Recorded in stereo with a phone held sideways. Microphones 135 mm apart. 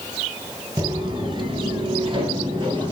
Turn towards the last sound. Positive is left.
turn(degrees=-35)  # may be behind; listen again after turning